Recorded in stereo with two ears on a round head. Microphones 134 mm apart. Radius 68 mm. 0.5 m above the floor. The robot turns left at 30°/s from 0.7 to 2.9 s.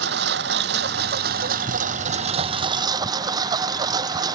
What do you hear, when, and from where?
0.0 s a lawn mower: 85° right; by 4.4 s 150° right